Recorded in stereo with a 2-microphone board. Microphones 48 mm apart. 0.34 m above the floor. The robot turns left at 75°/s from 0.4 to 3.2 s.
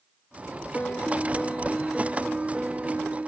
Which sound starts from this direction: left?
A piano, at 0.7 s.